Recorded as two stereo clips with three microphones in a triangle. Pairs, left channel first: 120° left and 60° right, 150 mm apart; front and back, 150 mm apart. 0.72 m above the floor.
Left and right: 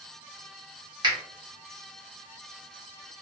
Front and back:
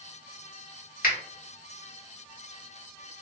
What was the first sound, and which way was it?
A finger snap, 5° right.